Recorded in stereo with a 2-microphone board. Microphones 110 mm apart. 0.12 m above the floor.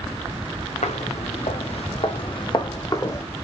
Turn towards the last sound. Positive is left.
turn(degrees=25)  # may be behind; listen again after turning